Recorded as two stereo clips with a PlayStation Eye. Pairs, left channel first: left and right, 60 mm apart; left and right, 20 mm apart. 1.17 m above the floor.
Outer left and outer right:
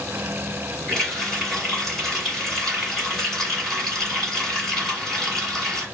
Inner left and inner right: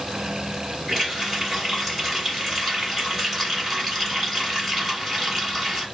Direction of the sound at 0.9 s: 10° left (ahead or behind).